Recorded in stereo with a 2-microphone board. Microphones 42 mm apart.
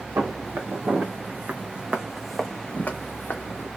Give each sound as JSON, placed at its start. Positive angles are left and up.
{"t": 0.2, "sound": "footsteps", "side_deg": -65, "distance_m": 1.2}